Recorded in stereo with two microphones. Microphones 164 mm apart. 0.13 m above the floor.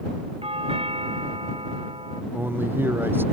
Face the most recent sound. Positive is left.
turn(degrees=-15)  # may be behind; listen again after turning